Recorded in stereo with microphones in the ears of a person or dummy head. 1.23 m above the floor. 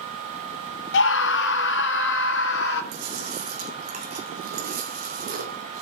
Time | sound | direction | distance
0.9 | a scream | 75° left (ahead or behind) | 0.8 m
2.9 | chewing | 45° right (ahead or behind) | 2.5 m